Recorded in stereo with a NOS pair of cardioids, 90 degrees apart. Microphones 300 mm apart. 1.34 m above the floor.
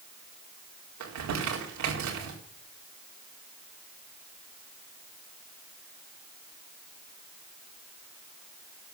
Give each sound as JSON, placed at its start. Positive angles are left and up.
{"t": 1.0, "sound": "crumpling", "azimuth_deg": -70, "distance_m": 4.0}